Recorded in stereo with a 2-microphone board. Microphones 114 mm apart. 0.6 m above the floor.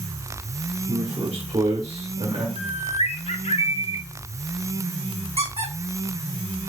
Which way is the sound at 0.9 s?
50° right (ahead or behind).